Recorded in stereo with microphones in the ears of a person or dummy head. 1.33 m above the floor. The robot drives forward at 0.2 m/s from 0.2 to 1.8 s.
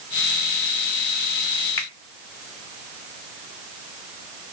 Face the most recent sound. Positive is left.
turn(degrees=15)  # may be behind; listen again after turning